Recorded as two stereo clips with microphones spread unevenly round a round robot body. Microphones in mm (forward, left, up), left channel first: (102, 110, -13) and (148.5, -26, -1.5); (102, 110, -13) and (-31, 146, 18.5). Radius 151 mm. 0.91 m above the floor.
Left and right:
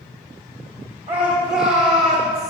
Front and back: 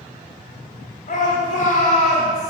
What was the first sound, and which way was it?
A shout, 35° right.